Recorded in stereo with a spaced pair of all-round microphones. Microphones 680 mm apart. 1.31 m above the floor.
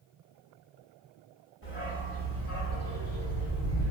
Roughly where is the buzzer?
No buzzer in this recording.